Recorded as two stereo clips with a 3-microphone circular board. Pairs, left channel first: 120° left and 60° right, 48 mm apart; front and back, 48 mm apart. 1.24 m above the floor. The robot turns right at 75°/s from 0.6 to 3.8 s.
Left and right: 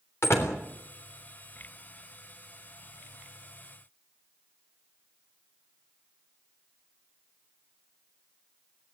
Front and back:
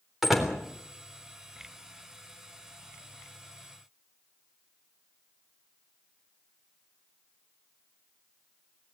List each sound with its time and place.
0.2 s a door slam: 95° left, 3.5 m